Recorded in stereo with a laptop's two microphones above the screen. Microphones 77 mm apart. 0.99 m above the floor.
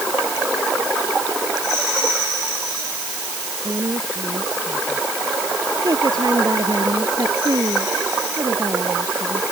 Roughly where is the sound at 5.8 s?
Right.